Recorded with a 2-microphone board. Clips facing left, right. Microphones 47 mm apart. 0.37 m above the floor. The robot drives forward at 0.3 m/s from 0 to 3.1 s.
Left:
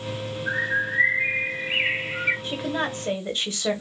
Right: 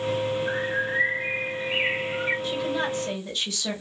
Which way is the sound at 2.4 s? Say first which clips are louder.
Right 1 dB; 35° left (ahead or behind).